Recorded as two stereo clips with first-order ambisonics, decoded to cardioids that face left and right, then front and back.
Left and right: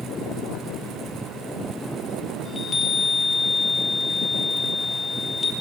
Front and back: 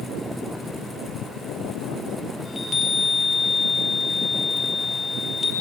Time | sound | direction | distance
2.5 | a chime | 50° left | 0.8 m